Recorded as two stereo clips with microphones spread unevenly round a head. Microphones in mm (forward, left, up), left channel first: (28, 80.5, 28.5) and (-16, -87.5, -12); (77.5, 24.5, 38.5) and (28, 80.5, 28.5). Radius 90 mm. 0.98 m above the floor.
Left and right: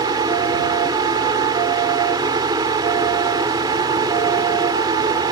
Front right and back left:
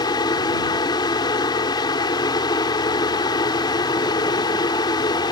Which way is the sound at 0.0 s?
40° right.